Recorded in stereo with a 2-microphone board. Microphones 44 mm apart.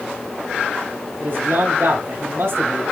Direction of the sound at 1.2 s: 60° right (ahead or behind).